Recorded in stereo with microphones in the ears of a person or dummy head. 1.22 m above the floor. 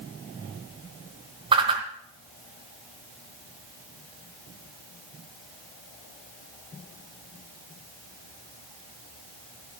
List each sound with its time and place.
1.5 s a whoosh: 25° right (ahead or behind), 2 m